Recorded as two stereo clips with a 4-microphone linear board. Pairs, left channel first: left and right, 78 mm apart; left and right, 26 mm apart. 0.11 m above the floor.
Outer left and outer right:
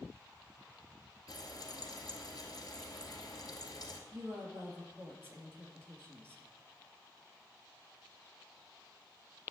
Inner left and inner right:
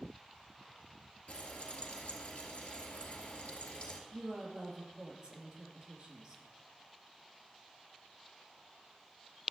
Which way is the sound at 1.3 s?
50° left (ahead or behind).